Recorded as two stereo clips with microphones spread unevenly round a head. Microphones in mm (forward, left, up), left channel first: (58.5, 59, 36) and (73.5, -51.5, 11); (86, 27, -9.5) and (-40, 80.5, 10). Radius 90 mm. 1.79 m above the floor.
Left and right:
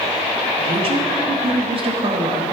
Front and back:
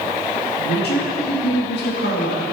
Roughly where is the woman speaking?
Ahead right.